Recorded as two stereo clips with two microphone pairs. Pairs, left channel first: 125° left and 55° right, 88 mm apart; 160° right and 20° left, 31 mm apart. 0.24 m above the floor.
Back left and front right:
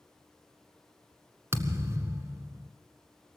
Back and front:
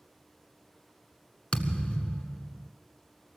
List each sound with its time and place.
1.5 s a thud: 110° right, 1.5 m